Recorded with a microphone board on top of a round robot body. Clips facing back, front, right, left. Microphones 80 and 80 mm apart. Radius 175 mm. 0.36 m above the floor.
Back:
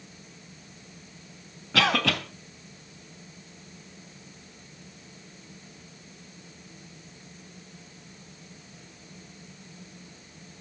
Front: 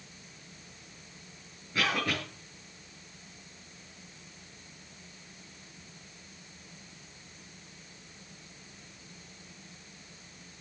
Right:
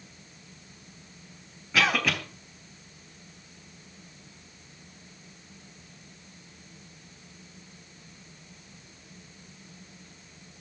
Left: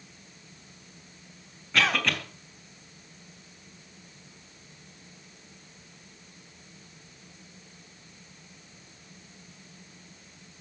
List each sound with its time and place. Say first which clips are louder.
1.7 s a cough: back 6 dB, right 1 dB; 175° right, 3.5 m